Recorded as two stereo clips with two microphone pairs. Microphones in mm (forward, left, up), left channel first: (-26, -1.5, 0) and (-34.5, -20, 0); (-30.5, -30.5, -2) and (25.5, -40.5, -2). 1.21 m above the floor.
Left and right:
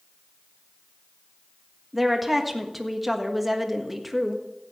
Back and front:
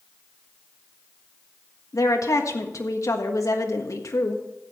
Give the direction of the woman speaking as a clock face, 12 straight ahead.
7 o'clock.